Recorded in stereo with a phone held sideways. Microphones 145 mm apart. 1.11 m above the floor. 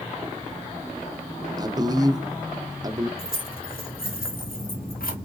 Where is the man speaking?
25° right (ahead or behind), 0.7 m.